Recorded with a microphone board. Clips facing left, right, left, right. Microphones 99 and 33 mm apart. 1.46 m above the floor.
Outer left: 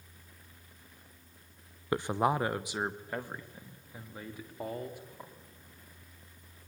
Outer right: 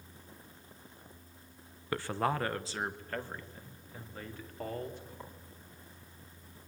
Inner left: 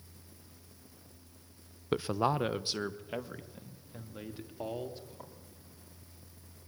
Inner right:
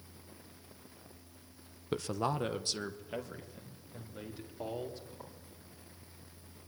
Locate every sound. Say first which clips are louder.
1.9 s a man speaking: outer left 3 dB, inner left 4 dB; 20° left (ahead or behind), 0.6 m; by 5.3 s 10° left (ahead or behind), 3.5 m